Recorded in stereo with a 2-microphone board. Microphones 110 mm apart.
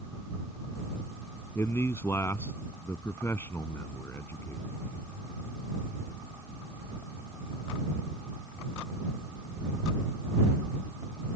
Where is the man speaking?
20° left (ahead or behind).